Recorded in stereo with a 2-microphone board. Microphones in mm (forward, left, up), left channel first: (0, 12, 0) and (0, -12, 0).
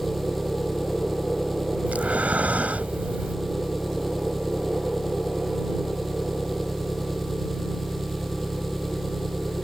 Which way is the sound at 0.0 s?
Centre (ahead or behind).